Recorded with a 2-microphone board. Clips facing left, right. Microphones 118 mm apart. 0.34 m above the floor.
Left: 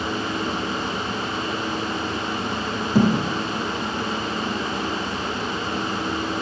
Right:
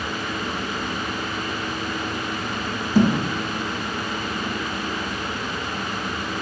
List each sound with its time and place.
3.0 s a thud: 70° left (ahead or behind), 1.9 m